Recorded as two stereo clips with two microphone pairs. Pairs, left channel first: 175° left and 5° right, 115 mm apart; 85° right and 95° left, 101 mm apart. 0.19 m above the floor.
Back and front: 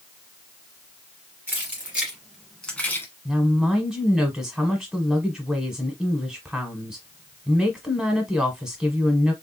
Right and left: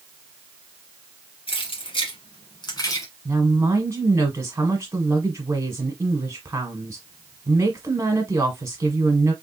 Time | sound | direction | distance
1.5 | keys jangling | 75° right | 2.5 m
3.2 | a woman speaking | 75° left | 1.3 m